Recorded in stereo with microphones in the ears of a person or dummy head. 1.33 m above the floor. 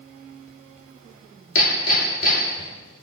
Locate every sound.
1.6 s hammering: 45° left (ahead or behind), 2.5 m